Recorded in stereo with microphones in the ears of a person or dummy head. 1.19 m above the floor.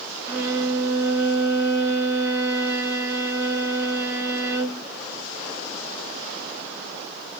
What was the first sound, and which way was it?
A violin, 15° right (ahead or behind).